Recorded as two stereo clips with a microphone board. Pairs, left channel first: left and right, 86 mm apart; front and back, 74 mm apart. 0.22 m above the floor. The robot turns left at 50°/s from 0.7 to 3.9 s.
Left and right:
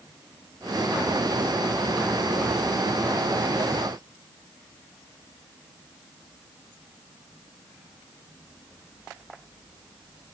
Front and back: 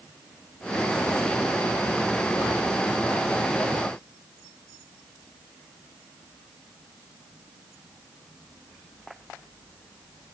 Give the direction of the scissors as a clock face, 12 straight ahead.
No scissors in this recording.